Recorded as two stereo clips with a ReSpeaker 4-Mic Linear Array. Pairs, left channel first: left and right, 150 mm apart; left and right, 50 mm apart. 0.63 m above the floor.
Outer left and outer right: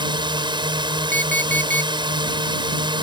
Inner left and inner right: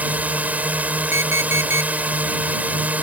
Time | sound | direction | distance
0.0 | a drone | 30° right (ahead or behind) | ?
1.1 | an alarm clock | 65° right (ahead or behind) | ?